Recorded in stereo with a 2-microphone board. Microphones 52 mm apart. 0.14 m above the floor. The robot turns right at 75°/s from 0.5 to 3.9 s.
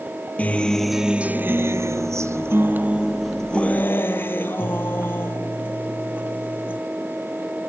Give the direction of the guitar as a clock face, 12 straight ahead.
7 o'clock.